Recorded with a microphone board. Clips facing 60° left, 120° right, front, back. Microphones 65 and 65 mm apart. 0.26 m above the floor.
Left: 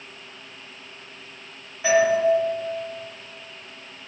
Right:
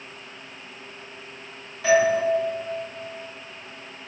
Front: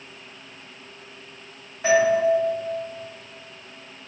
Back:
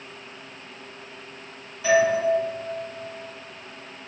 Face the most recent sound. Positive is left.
turn(degrees=-10)